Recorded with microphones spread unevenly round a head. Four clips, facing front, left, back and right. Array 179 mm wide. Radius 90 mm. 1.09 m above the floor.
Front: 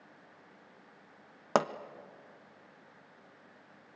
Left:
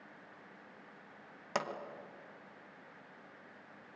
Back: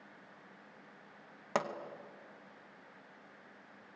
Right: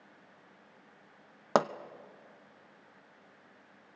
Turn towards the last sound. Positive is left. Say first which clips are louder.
# right 10 dB, front 6 dB
turn(degrees=-55)